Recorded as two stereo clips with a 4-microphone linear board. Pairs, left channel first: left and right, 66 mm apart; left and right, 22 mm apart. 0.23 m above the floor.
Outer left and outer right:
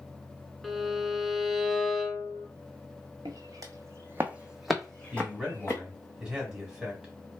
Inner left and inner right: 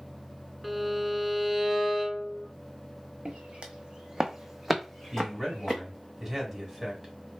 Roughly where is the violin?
Centre.